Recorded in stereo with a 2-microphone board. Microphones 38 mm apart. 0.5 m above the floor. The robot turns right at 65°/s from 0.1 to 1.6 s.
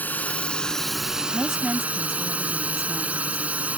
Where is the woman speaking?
20° right (ahead or behind); by 3.4 s 5° right (ahead or behind).